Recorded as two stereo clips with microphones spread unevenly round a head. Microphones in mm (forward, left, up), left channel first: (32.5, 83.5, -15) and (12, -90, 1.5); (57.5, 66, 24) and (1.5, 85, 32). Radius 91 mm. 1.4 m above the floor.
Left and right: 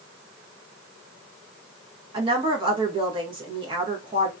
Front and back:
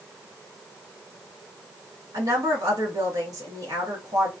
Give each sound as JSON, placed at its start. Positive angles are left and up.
{"t": 2.1, "sound": "a woman speaking", "azimuth_deg": -160, "distance_m": 1.2}